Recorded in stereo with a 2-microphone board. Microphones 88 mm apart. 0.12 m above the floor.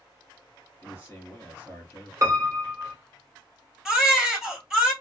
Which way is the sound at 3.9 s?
5° right (ahead or behind).